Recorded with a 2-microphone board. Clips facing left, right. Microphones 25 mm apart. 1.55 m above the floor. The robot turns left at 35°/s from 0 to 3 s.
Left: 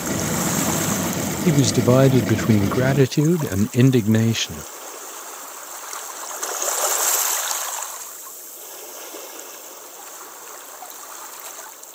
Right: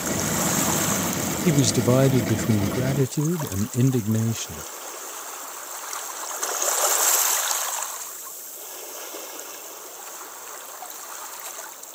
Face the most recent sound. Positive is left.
turn(degrees=125)